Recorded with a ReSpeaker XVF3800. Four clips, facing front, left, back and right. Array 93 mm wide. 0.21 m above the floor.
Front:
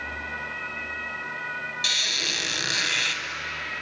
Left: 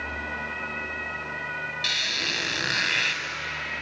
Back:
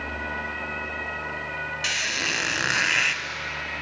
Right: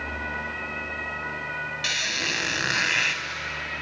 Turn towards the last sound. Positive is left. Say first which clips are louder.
# right 1 dB, back 3 dB
turn(degrees=-165)